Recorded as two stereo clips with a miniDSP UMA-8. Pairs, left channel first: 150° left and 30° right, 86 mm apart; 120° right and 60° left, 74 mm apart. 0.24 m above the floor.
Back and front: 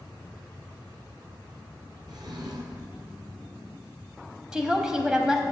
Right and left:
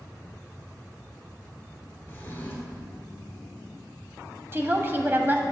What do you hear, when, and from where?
2.1 s a drawer: 60° right, 1.8 m
4.5 s a woman speaking: 45° left, 1.1 m